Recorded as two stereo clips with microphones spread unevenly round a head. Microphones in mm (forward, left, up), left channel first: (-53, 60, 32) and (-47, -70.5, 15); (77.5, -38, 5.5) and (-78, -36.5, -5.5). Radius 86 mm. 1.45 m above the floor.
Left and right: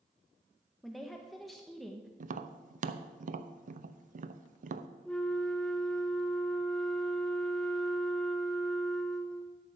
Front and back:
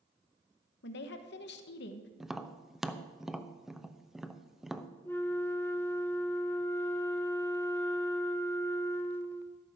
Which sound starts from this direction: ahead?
A woman speaking, at 0.8 s.